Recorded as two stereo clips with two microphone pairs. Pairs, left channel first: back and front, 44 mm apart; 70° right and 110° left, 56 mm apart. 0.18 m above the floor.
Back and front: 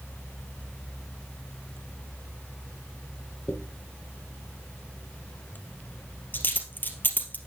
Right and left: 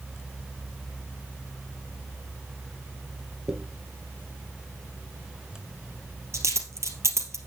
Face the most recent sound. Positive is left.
turn(degrees=135)